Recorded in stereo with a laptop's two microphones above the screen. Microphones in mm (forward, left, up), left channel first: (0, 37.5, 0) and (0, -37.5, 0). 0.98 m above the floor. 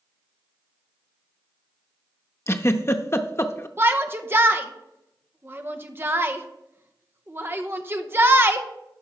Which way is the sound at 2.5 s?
35° left (ahead or behind).